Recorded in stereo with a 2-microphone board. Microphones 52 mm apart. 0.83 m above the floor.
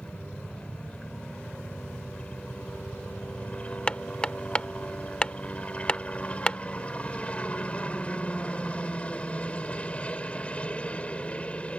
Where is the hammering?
25° left (ahead or behind).